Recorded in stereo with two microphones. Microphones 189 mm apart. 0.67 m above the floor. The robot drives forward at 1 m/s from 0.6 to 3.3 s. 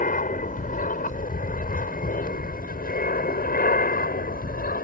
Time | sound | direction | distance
0.0 | an aircraft | 45° left (ahead or behind) | ?